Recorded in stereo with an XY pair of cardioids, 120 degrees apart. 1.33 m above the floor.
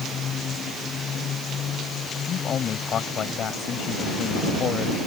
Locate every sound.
2.3 s a man speaking: 50° left